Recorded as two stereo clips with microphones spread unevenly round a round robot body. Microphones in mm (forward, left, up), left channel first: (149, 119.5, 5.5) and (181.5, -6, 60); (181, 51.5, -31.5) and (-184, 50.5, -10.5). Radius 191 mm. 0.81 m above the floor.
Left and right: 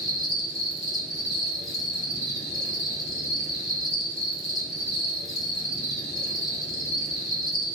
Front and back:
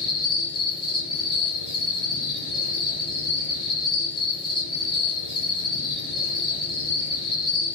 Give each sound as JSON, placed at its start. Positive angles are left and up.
{"t": 0.0, "sound": "an insect", "azimuth_deg": 80, "distance_m": 1.2}